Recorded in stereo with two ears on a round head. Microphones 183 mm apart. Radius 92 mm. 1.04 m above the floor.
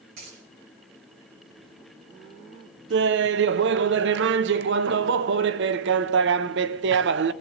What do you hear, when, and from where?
0.2 s a dropped coin: 50° right (ahead or behind), 4.5 m
2.9 s laughter: 55° right (ahead or behind), 0.5 m